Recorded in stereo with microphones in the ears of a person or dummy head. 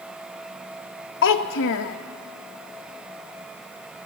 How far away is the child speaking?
About 1.1 m.